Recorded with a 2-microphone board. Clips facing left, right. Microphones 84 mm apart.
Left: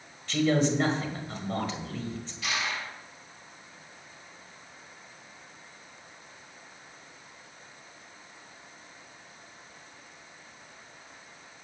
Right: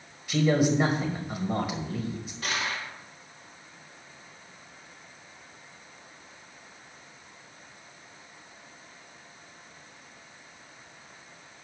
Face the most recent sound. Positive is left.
turn(degrees=-40)  # may be behind; listen again after turning